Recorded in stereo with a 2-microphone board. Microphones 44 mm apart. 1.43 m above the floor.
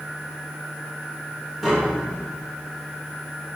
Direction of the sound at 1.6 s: Centre (ahead or behind).